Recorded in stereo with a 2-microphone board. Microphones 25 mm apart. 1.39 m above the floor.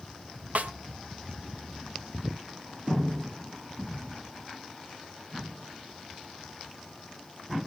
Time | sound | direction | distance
0.6 | a snare drum | 75° right (ahead or behind) | 1.0 m